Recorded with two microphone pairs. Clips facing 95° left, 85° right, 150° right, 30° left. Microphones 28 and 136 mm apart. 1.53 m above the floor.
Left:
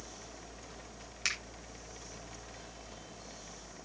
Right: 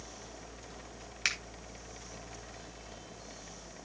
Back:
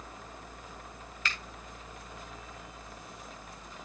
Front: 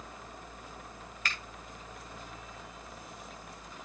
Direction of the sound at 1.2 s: 10° right.